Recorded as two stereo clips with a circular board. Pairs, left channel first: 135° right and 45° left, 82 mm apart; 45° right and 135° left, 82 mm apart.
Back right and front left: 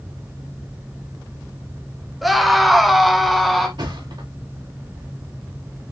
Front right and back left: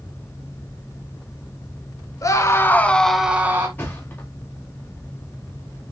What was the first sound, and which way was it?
A scream, 45° right.